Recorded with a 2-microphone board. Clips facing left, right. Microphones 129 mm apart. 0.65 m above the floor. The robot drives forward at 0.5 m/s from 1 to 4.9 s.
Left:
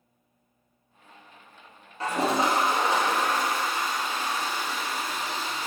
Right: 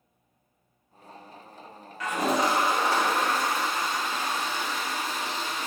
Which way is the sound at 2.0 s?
30° left (ahead or behind).